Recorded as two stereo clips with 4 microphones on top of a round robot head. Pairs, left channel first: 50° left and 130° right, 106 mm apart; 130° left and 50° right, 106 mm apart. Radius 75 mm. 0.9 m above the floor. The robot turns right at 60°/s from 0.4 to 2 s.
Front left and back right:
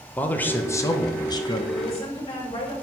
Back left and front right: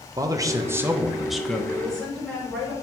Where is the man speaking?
15° right, 1.1 m; by 1.6 s 55° left, 1.1 m.